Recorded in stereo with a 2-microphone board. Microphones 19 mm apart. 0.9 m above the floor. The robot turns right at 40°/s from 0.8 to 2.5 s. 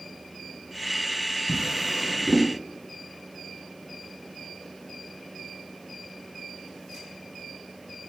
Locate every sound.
1.5 s a drawer: 30° right (ahead or behind), 4.5 m; by 2.5 s 70° right (ahead or behind), 4.5 m